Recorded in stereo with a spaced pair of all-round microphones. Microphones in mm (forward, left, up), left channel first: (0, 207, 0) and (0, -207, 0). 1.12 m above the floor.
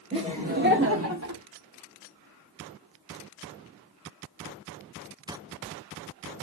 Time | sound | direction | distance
0.1 | laughter | 10° right (ahead or behind) | 1.6 m